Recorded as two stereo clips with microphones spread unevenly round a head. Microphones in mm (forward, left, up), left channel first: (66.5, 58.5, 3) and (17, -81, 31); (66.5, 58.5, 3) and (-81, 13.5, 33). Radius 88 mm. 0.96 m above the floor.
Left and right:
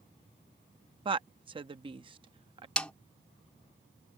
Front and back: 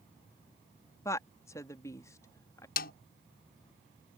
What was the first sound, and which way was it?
A woman speaking, 55° right.